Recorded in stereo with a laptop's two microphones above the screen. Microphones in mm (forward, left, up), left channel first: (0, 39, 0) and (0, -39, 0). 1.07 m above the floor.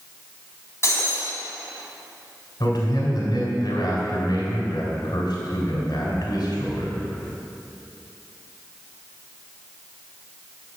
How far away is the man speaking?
About 3.5 m.